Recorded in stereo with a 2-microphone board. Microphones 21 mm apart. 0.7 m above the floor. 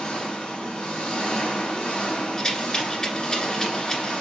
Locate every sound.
0.0 s an engine running: 75° left (ahead or behind), 1.6 m
2.4 s a rattle: 30° left (ahead or behind), 1.5 m